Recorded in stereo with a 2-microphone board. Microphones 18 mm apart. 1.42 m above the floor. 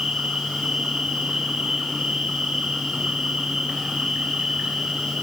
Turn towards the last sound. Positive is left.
turn(degrees=-65)  # may be behind; listen again after turning